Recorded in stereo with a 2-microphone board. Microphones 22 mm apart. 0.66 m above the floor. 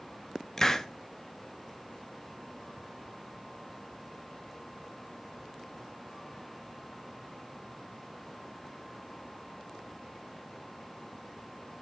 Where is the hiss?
20° left (ahead or behind), 0.9 m.